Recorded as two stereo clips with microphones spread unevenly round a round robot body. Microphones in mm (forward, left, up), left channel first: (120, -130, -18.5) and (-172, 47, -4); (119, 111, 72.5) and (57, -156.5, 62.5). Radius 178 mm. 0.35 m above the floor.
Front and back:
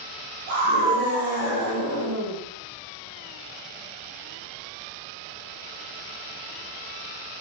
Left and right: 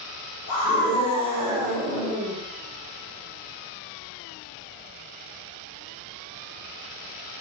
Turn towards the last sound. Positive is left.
turn(degrees=-165)